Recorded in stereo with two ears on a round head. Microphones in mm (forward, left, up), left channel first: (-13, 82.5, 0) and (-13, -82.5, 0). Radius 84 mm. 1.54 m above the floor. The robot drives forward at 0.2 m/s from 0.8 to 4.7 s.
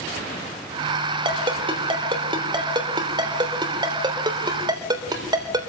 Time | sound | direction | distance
1.2 | a ringtone | 30° right (ahead or behind) | 3.5 m